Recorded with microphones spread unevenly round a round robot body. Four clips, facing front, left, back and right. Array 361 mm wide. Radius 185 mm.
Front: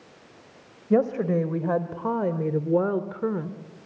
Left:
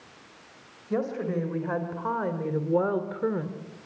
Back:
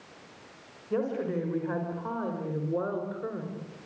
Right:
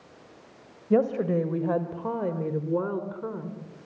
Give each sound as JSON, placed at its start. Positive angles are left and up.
{"t": 0.9, "sound": "a woman speaking", "azimuth_deg": -25, "distance_m": 3.0}